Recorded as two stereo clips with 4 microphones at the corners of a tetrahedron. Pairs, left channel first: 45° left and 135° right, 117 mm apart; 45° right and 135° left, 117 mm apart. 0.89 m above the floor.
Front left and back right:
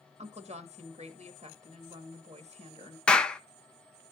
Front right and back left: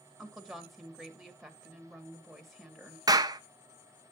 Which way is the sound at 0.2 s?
135° right.